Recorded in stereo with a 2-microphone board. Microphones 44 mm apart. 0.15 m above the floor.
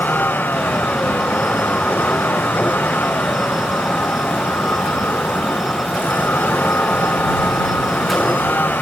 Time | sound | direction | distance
0.0 | a vehicle | 45° left (ahead or behind) | ?